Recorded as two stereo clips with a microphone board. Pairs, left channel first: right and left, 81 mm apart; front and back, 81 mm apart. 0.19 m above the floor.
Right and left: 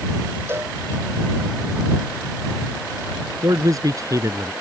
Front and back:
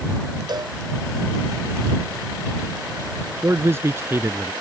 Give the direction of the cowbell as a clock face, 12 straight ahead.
7 o'clock.